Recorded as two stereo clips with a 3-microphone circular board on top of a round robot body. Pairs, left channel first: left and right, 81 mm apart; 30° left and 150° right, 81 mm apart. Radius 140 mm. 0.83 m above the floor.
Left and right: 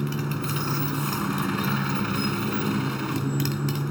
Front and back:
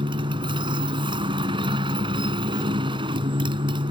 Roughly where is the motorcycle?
Behind.